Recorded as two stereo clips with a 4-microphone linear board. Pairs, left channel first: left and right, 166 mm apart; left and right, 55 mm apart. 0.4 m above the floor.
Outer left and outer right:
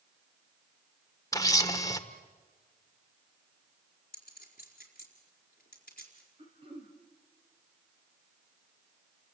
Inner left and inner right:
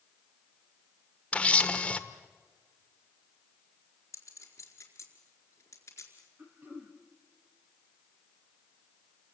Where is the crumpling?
No crumpling in this recording.